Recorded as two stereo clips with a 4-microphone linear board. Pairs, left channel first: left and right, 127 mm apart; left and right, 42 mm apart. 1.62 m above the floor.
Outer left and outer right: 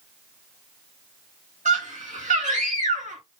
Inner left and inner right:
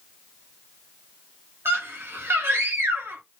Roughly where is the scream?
Right.